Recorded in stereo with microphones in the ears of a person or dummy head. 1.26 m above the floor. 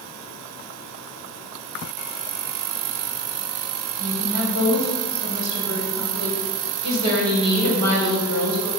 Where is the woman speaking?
90° right, 4 m.